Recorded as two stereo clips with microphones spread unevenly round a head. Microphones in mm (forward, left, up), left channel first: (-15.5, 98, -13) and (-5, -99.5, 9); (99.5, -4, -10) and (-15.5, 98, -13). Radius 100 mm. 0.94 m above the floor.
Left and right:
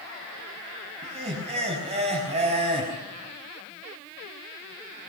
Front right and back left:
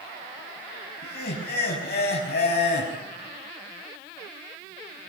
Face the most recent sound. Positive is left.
turn(degrees=-25)